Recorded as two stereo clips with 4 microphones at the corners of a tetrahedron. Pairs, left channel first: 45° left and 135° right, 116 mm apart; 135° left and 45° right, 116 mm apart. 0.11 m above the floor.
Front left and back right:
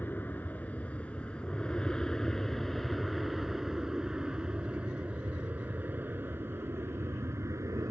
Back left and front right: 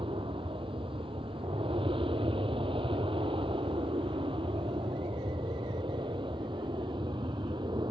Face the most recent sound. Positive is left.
turn(degrees=-80)